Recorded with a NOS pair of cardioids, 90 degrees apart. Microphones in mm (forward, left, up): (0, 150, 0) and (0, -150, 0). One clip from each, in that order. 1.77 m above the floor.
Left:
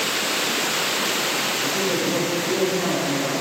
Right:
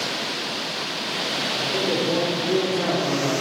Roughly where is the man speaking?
Ahead right.